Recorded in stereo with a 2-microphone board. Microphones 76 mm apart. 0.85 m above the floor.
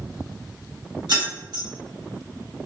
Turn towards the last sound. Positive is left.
turn(degrees=-75)  # may be behind; listen again after turning